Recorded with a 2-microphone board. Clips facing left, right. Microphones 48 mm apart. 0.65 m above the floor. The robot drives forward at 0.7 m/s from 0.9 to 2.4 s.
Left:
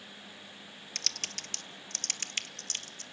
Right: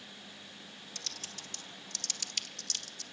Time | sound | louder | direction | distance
0.9 | typing on a keyboard | left 7 dB | 65° left (ahead or behind) | 0.7 m